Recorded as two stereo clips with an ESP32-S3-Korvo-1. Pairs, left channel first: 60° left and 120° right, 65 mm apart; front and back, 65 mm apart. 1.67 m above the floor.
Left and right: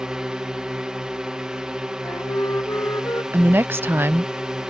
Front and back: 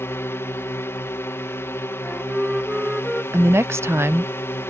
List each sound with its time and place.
0.0 s a drone: 40° right
2.0 s a flute: 100° left
3.3 s a woman speaking: 155° right